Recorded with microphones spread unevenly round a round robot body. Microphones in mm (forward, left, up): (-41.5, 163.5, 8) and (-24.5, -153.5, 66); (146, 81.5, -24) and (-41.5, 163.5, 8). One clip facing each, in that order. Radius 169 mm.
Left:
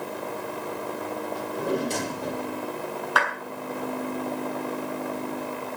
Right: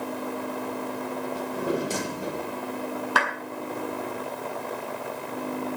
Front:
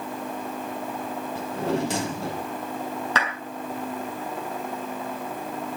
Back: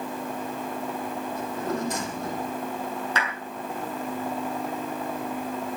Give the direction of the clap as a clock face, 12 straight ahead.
1 o'clock.